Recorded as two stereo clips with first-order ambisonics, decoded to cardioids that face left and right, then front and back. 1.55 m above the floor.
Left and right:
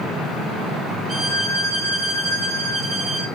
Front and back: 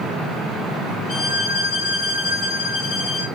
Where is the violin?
35° right, 1.2 m.